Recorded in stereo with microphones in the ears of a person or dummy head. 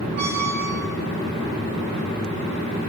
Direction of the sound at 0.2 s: 65° right (ahead or behind).